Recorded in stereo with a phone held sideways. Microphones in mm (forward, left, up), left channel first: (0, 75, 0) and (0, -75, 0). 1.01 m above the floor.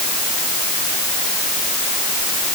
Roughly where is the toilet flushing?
No toilet flushing in this recording.